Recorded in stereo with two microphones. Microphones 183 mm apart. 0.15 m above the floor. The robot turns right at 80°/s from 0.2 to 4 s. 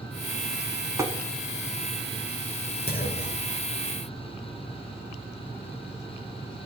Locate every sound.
1.0 s tapping: 15° right (ahead or behind), 1.0 m; by 1.1 s 20° right (ahead or behind), 1.0 m
2.9 s a clunk: 80° left, 1.2 m; by 3.5 s 135° left, 1.2 m